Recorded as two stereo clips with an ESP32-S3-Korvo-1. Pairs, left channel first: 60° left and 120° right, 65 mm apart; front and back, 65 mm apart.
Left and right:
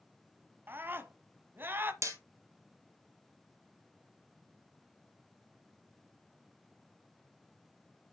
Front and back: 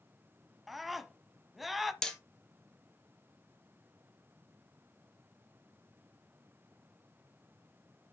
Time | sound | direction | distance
0.7 | a scream | 90° right | 1.2 m
2.0 | hammering | 80° right | 1.8 m